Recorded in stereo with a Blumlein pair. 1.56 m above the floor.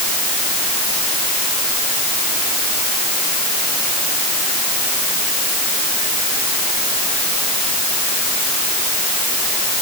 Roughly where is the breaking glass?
I don't hear breaking glass.